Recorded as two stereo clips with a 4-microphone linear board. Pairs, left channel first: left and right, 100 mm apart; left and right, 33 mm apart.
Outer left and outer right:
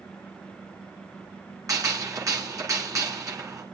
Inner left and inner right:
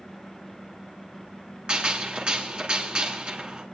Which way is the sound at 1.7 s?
35° right (ahead or behind).